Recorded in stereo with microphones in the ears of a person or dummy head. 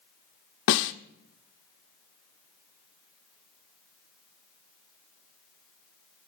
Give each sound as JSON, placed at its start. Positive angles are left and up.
{"t": 0.7, "sound": "a snare drum", "side_deg": 70, "distance_m": 1.1}